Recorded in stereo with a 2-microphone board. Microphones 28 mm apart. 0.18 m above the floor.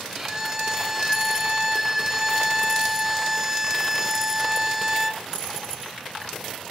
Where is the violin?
20° right (ahead or behind), 1.3 m.